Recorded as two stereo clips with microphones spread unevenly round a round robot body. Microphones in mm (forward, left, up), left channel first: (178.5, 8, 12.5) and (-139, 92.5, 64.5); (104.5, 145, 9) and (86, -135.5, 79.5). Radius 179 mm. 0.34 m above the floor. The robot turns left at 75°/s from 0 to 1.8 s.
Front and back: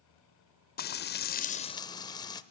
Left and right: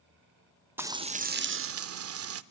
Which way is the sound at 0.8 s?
5° left.